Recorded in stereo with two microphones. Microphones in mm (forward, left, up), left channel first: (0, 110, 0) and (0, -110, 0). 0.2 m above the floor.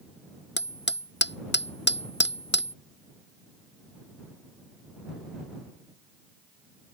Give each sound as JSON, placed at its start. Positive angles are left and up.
{"t": 0.6, "sound": "hammering", "side_deg": 55}